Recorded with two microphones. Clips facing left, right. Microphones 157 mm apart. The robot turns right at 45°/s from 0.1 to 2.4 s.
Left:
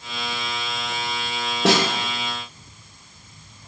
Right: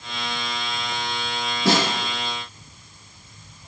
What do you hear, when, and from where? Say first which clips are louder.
1.6 s a snare drum: left 1 dB; 85° left, 1.0 m; by 1.8 s 80° left, 1.0 m